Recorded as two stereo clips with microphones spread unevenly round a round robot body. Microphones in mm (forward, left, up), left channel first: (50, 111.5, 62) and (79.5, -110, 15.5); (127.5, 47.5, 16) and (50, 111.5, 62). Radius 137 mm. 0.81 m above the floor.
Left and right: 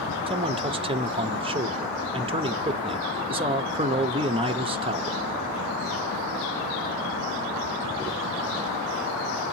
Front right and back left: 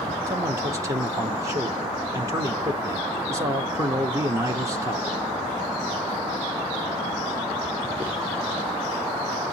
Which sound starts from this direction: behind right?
A man speaking, at 0.3 s.